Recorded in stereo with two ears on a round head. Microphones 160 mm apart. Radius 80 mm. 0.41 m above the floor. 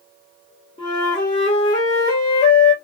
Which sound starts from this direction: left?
A flute, at 0.8 s.